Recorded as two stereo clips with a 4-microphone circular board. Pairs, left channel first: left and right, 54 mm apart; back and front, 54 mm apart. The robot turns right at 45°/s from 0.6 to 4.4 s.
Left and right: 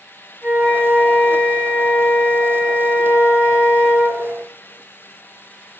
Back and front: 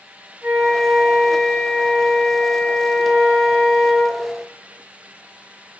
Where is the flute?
45° right, 1.8 m; by 4.2 s 120° left, 1.8 m.